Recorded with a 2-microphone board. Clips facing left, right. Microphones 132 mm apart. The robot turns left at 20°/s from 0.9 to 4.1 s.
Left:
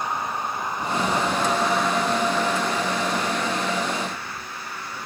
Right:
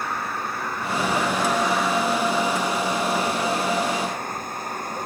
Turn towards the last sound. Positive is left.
turn(degrees=-45)